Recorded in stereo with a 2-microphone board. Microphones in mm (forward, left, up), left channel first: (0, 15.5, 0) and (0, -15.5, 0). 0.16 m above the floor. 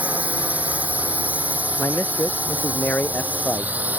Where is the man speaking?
75° left (ahead or behind).